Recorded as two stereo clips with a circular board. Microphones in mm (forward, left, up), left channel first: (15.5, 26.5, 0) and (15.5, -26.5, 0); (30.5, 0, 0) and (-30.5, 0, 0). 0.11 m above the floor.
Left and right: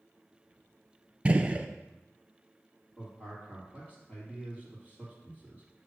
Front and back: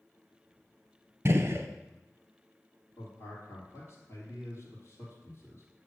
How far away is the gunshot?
About 0.6 m.